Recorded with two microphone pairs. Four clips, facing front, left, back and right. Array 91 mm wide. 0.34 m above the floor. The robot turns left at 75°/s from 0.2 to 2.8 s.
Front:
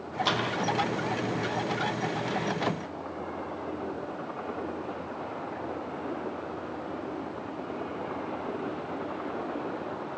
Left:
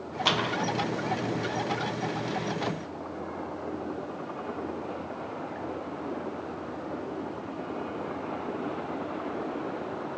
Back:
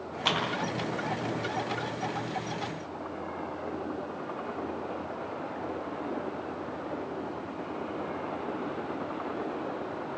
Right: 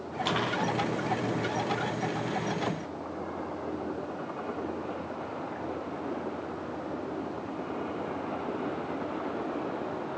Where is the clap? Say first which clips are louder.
Left 2 dB, even; 135° left, 9 m; by 0.4 s 120° left, 9 m.